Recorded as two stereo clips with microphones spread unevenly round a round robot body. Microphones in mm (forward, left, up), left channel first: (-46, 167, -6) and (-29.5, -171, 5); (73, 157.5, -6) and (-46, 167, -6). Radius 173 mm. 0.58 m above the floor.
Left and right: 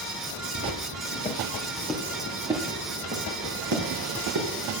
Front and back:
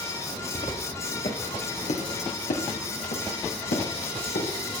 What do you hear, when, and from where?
0.6 s footsteps: 30° left, 3 m; by 4.5 s 35° right, 4 m